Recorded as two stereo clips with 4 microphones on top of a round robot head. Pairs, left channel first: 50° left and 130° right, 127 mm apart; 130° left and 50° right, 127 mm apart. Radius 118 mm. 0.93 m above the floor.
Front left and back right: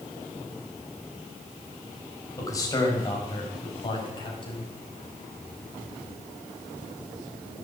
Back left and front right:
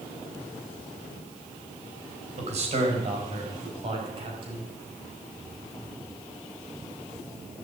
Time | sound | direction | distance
2.4 | a man speaking | 15° right | 5 m